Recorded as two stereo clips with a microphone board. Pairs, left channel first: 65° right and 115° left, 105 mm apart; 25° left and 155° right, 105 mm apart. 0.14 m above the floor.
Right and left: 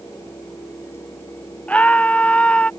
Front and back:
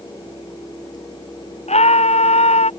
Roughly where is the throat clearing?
No throat clearing in this recording.